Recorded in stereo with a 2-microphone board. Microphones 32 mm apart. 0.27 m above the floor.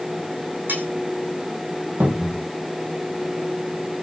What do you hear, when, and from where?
0.7 s cutlery clinking: 75° right (ahead or behind), 9.5 m
2.0 s a cupboard door: 85° right, 6.5 m